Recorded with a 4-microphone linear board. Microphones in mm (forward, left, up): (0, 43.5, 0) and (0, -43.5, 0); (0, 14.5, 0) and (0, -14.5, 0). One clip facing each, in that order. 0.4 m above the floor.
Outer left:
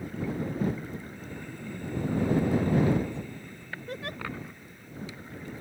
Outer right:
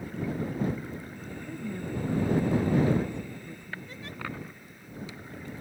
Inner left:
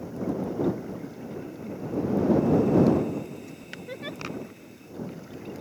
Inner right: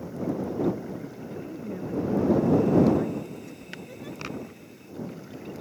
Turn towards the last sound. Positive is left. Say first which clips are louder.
# outer left 6 dB, inner left 3 dB
turn(degrees=60)  # may be behind; listen again after turning